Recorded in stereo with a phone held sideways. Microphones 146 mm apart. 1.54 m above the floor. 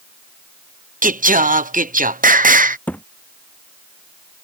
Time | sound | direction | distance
1.0 | singing | 70° right (ahead or behind) | ?
2.9 | a thud | 10° left (ahead or behind) | ?